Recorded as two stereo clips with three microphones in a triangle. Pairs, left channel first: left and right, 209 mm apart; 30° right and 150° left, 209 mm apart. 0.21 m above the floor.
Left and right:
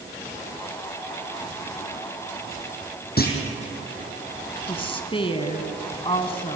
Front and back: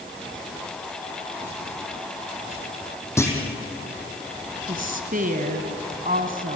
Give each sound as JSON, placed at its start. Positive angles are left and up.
{"t": 3.2, "sound": "a clunk", "azimuth_deg": 45, "distance_m": 3.0}
{"t": 4.7, "sound": "a woman speaking", "azimuth_deg": 140, "distance_m": 1.7}